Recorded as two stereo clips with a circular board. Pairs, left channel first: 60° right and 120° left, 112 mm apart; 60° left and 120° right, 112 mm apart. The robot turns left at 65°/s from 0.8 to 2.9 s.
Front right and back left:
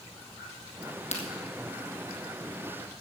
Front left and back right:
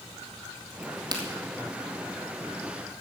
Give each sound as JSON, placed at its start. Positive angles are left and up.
{"t": 0.8, "sound": "a crack", "azimuth_deg": -45, "distance_m": 2.0}